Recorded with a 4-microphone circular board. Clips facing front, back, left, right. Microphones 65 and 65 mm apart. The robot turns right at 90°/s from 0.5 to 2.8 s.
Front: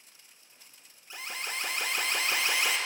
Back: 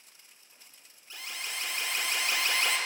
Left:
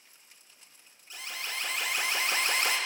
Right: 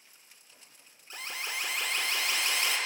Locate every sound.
1.1 s an alarm: 65° right, 1.0 m; by 2.8 s 85° left, 1.0 m